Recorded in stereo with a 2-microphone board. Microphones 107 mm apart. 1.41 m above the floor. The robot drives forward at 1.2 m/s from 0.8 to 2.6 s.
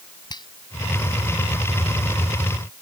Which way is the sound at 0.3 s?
40° left (ahead or behind).